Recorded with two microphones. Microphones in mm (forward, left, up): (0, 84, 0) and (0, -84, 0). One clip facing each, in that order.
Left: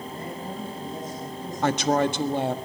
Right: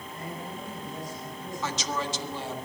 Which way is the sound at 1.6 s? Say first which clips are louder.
Left 11 dB; 65° left (ahead or behind).